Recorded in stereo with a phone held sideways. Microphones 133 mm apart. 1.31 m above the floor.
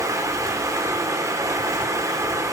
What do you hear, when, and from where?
0.0 s running water: 20° right (ahead or behind), 1.4 m